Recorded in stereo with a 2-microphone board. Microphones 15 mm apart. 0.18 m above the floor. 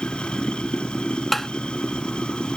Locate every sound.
0.0 s running water: 65° left (ahead or behind)
1.3 s tapping: 10° left (ahead or behind)